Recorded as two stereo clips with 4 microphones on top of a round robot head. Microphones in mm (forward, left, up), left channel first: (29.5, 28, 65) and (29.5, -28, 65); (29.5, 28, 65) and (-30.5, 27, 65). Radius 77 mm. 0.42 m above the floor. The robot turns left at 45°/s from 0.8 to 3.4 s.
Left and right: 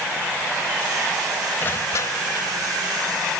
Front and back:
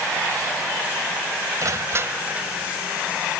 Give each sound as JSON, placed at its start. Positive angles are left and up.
{"t": 1.6, "sound": "crushing", "azimuth_deg": 150}